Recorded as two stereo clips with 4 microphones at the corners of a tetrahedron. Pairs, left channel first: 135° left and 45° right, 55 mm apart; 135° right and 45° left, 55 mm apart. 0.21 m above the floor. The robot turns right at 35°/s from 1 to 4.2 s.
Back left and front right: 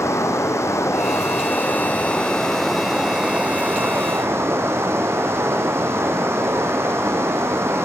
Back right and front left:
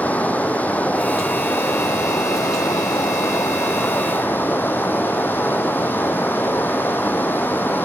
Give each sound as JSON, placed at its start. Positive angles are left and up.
{"t": 0.0, "sound": "running water", "azimuth_deg": 165, "distance_m": 1.1}